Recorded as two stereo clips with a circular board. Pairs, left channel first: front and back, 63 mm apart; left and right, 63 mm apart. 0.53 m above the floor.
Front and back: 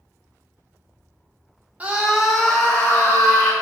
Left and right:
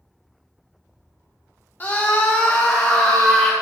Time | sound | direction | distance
1.8 | a scream | 130° left | 0.9 m